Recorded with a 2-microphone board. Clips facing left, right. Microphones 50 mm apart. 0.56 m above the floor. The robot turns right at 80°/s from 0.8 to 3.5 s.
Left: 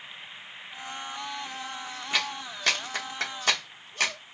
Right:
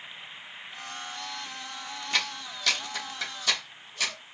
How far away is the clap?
About 0.7 m.